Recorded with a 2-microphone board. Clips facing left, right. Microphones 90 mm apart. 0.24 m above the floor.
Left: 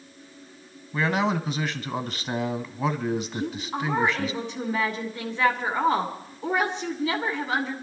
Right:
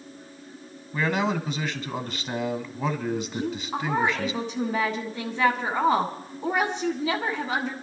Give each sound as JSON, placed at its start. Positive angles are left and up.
{"t": 0.9, "sound": "a man speaking", "side_deg": 0, "distance_m": 1.4}
{"t": 3.3, "sound": "a woman speaking", "side_deg": -25, "distance_m": 2.0}